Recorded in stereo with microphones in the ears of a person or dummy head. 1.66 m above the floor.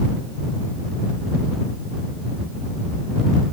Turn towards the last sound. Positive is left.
No sound to turn to.